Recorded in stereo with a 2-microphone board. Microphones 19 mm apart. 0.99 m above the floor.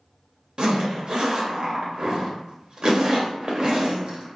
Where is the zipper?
50° right (ahead or behind), 0.7 m.